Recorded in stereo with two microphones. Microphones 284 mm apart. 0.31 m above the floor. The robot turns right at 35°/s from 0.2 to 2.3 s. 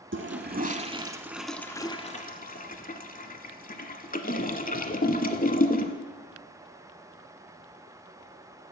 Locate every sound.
0.1 s a toilet flushing: 45° right (ahead or behind), 0.6 m; by 5.9 s 30° left (ahead or behind), 0.6 m